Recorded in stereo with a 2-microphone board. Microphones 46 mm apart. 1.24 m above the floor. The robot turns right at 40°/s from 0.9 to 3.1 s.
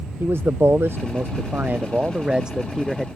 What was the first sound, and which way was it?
A man speaking, 80° right.